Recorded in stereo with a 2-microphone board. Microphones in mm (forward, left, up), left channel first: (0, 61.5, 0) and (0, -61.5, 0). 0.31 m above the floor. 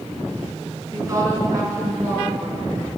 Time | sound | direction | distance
0.9 | a woman speaking | 30° right (ahead or behind) | 4 m